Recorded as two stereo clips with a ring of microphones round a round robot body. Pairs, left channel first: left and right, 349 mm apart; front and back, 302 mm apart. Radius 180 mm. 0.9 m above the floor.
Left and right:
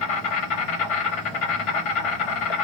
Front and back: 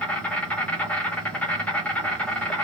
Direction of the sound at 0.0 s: 85° left.